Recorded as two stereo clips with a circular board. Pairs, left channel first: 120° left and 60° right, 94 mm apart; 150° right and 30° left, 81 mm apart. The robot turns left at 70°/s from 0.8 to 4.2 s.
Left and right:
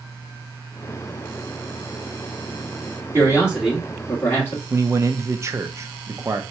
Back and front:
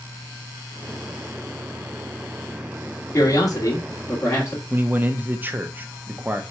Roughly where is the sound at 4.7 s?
Ahead right.